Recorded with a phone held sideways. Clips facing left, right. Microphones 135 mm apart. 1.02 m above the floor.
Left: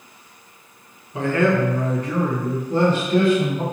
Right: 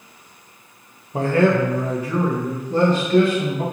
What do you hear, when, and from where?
1.1 s a man speaking: 40° right (ahead or behind), 0.8 m; by 3.6 s 20° left (ahead or behind), 1.8 m